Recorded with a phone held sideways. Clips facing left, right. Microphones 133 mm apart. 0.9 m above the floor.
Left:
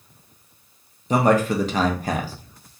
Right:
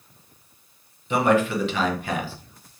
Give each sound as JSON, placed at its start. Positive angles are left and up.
{"t": 1.1, "sound": "a man speaking", "side_deg": 40, "distance_m": 0.6}